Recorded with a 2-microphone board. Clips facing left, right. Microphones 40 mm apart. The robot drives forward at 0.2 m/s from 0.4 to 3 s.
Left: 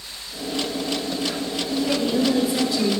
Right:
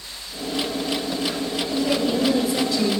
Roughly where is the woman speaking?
Centre.